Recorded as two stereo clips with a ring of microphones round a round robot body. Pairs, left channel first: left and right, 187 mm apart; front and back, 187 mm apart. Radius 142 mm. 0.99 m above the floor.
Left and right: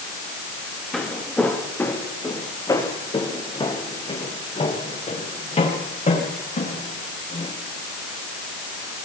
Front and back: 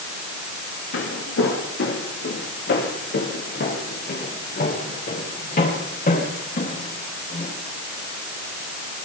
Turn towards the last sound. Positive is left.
turn(degrees=45)